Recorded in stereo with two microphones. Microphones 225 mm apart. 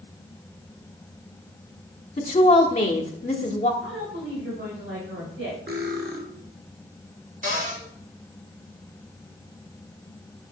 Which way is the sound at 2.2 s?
35° left (ahead or behind).